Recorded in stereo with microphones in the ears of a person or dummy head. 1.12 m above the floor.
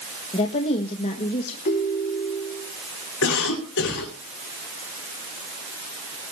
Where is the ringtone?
45° left (ahead or behind), 3 m.